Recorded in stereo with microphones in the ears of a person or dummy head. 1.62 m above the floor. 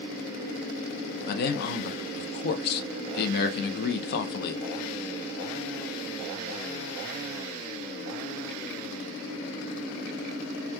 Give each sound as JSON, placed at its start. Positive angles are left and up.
{"t": 1.3, "sound": "a man speaking", "side_deg": 55, "distance_m": 0.7}